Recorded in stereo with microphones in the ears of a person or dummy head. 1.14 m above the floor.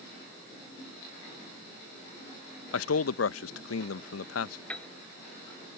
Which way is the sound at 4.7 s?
10° left (ahead or behind).